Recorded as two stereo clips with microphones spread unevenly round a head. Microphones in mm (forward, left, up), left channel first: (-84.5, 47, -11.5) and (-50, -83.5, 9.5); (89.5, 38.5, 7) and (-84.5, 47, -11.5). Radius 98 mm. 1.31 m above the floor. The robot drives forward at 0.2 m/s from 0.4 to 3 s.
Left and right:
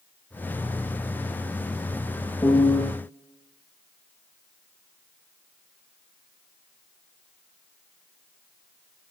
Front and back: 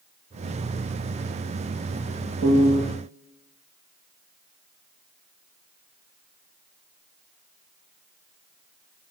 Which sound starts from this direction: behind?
A piano, at 2.4 s.